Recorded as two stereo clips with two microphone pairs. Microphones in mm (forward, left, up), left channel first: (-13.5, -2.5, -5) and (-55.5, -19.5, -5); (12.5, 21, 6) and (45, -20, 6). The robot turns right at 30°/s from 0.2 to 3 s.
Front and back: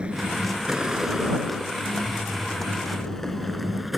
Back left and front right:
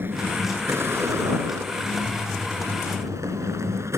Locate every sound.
0.0 s a vehicle: 95° right; by 4.0 s 75° right